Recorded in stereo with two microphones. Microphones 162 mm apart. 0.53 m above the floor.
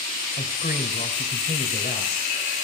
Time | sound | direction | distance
0.4 | a man speaking | 70° left (ahead or behind) | 2 m